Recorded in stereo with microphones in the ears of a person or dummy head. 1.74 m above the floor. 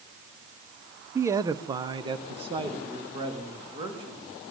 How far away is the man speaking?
About 0.6 m.